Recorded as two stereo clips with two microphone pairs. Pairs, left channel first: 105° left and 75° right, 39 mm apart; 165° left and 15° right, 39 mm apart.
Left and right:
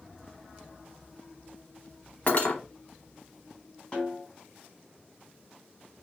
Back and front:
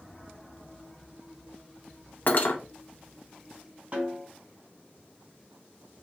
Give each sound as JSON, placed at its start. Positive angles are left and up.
{"t": 2.3, "sound": "cutlery clinking", "azimuth_deg": 150, "distance_m": 0.9}
{"t": 3.9, "sound": "a snare drum", "azimuth_deg": 40, "distance_m": 2.5}